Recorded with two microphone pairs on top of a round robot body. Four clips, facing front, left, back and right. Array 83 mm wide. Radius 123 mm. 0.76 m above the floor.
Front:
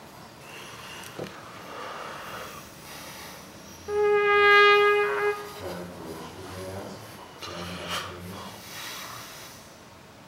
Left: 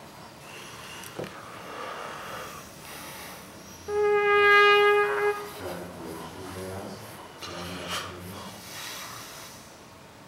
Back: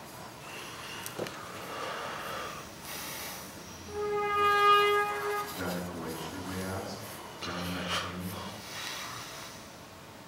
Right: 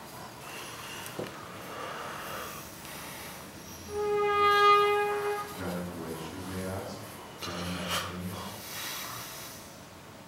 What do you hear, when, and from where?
3.9 s a trumpet: 40° left, 1.0 m
5.4 s a man speaking: 165° right, 7.5 m